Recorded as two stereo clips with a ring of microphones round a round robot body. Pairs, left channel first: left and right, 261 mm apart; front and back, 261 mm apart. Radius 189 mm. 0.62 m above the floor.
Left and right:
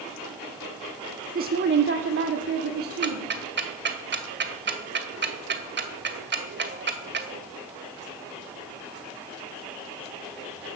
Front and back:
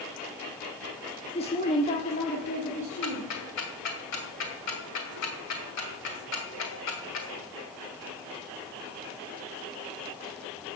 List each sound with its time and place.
1.4 s a woman speaking: 55° right, 1.0 m; by 3.3 s 65° right, 2 m
3.0 s ticking: 40° right, 1.8 m